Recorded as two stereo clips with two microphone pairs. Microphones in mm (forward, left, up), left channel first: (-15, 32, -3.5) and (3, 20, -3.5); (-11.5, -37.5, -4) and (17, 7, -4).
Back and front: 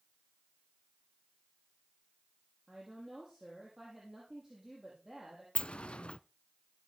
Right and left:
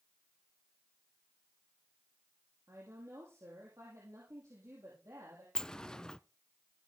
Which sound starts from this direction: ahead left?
A woman speaking, at 2.7 s.